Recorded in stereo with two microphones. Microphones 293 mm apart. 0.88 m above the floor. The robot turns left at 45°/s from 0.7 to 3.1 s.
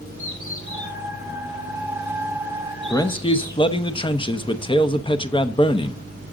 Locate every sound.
0.2 s a bird: 80° left, 3.5 m; by 3.6 s 10° right (ahead or behind), 3.5 m
2.9 s a man speaking: 10° left (ahead or behind), 0.8 m; by 6.0 s 15° left (ahead or behind), 0.8 m